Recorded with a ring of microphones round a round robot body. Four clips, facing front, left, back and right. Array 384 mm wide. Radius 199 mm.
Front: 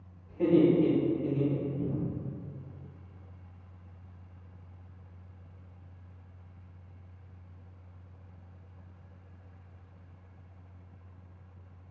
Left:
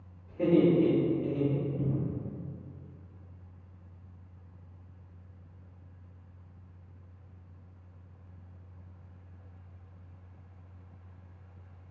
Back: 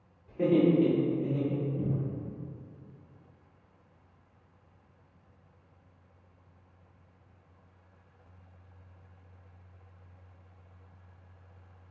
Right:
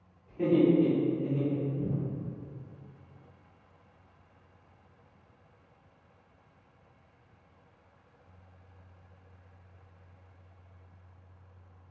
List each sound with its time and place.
0.3 s laughter: 165° right, 1.3 m; by 1.7 s 135° left, 1.0 m
1.8 s a cupboard door: 140° left, 0.9 m